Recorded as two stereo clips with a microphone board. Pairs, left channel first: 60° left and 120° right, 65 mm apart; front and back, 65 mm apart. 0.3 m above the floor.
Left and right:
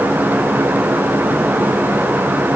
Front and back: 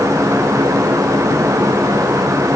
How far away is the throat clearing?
I don't hear throat clearing.